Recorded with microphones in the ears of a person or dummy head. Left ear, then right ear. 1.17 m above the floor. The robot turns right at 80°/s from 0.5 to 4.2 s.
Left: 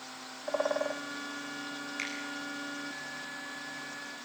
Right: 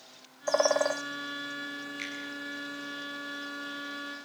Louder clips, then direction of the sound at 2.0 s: Left 3 dB; 25° left (ahead or behind).